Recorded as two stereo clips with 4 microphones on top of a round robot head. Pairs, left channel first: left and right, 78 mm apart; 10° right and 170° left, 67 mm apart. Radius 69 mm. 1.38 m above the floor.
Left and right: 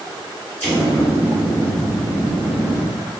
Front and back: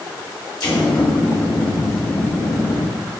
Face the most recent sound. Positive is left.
turn(degrees=20)